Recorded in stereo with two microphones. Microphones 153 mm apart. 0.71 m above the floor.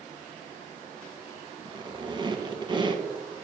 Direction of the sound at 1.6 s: 30° right (ahead or behind).